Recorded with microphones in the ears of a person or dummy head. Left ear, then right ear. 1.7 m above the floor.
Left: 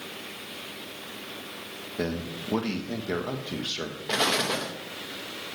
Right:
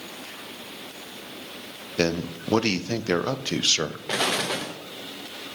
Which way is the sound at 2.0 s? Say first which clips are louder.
Right 7 dB; 75° right (ahead or behind).